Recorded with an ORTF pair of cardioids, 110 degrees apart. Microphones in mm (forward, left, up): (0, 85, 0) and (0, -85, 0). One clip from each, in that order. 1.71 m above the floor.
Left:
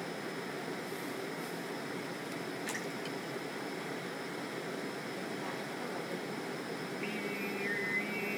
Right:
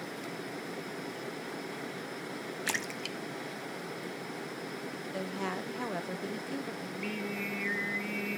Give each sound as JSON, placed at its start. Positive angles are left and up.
{"t": 2.7, "sound": "a splash", "azimuth_deg": -50, "distance_m": 0.8}
{"t": 5.1, "sound": "a woman speaking", "azimuth_deg": -65, "distance_m": 1.4}
{"t": 6.8, "sound": "singing", "azimuth_deg": -15, "distance_m": 0.9}